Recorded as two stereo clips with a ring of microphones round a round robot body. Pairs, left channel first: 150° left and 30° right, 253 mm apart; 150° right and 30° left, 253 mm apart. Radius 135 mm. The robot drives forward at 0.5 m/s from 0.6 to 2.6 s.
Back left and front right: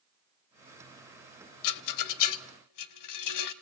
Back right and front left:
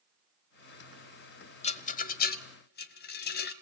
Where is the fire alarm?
No fire alarm in this recording.